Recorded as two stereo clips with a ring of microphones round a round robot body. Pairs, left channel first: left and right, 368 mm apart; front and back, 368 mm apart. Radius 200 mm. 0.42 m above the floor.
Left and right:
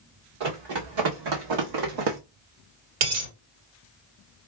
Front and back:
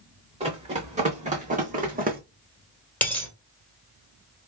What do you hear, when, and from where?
0.4 s running footsteps: 105° right, 2 m; by 2.2 s 115° right, 1.2 m
3.0 s a dropped coin: 85° right, 2.5 m